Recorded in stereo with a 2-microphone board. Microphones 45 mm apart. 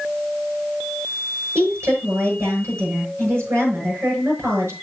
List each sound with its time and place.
1.6 s a woman speaking: 60° right (ahead or behind), 6 m